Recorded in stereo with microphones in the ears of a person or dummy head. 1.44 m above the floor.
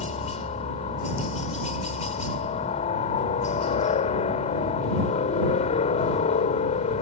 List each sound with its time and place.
0.0 s a helicopter: 25° left (ahead or behind)